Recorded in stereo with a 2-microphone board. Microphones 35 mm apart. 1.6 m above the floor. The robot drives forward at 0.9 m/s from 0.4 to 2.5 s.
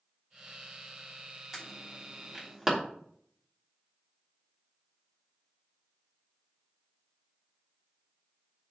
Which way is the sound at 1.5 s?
10° right (ahead or behind).